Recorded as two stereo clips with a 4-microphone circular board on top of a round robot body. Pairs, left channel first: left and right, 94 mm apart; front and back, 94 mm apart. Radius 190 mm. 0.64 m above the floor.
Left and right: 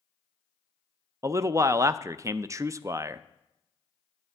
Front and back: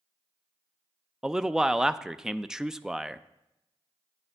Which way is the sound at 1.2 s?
100° right.